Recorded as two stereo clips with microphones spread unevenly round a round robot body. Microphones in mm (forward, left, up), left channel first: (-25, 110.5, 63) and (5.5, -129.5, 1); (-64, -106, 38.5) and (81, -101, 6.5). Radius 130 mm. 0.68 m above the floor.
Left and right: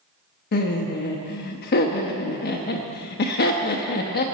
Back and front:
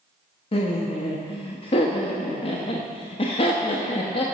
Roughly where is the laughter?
Behind left.